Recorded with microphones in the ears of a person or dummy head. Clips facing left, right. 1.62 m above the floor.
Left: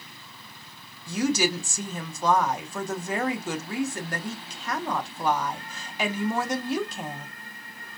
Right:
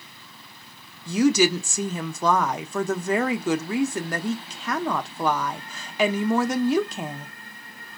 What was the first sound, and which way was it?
A woman speaking, 75° right (ahead or behind).